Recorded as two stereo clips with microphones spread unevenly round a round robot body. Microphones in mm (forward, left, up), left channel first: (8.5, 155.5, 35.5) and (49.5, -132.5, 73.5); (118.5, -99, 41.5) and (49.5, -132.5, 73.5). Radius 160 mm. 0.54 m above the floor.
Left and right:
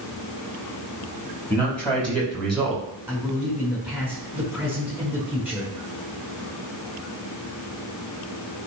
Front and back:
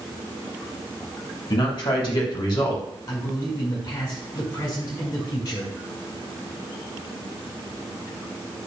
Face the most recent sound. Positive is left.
turn(degrees=5)